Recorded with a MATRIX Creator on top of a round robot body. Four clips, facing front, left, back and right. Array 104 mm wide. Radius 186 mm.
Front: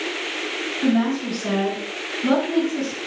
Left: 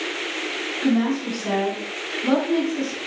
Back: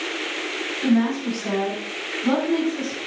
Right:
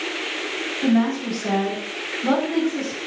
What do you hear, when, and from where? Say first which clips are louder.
0.8 s a woman speaking: right 1 dB, even; 65° right, 4 m